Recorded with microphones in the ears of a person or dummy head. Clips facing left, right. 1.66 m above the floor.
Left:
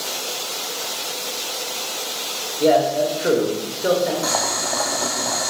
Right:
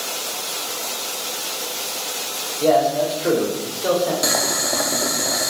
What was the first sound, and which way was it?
A man speaking, 20° left (ahead or behind).